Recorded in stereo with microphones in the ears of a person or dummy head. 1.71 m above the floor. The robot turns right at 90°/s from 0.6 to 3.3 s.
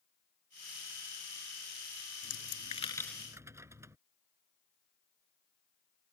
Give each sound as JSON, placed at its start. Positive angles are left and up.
{"t": 2.2, "sound": "a dropped coin", "side_deg": 75}